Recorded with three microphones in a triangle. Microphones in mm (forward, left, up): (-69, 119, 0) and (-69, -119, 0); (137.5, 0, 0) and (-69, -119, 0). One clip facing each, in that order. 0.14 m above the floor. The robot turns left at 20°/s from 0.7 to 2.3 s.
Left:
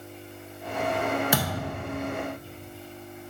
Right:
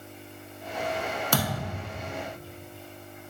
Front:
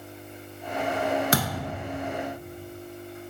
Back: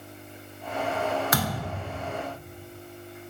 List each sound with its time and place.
1.3 s a thud: 25° left, 0.7 m; by 1.7 s 15° left, 0.7 m